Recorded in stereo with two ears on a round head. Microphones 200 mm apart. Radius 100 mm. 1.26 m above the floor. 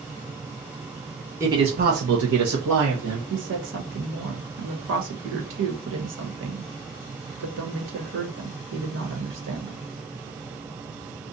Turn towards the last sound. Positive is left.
turn(degrees=-60)  # may be behind; listen again after turning